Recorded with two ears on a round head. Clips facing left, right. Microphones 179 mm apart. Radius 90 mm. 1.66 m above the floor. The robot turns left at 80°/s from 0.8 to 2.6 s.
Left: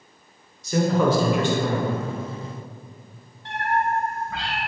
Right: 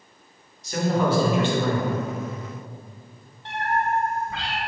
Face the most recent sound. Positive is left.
turn(degrees=-20)  # may be behind; listen again after turning